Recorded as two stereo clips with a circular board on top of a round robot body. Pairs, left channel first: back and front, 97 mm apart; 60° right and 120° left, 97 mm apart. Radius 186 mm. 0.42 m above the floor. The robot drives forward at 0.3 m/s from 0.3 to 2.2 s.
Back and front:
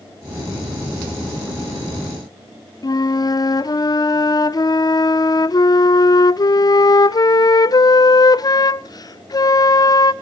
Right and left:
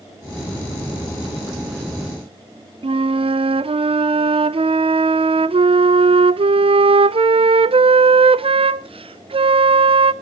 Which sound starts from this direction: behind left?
A flute, at 2.8 s.